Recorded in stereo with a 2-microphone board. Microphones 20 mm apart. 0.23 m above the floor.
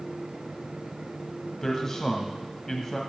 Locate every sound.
1.6 s a man speaking: 25° left (ahead or behind), 1.5 m